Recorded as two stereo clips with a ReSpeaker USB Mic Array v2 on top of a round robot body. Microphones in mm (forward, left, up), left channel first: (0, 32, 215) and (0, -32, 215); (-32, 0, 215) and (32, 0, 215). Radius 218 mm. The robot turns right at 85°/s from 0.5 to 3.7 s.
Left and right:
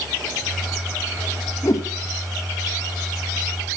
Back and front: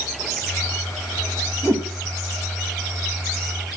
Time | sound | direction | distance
1.6 | a whoosh | 45° left | 3.5 m